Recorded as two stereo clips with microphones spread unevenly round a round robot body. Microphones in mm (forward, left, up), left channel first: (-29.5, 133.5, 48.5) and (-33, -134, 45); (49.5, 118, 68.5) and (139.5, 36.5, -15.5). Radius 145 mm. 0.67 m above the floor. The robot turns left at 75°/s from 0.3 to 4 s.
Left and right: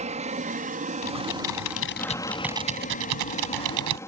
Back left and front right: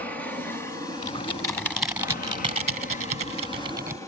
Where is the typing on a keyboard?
100° left; by 4.0 s 120° right.